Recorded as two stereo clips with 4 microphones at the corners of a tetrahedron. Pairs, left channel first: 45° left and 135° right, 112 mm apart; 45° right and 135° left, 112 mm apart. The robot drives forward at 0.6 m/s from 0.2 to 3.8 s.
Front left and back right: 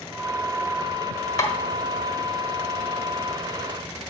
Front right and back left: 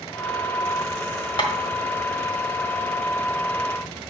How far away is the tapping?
About 1.5 m.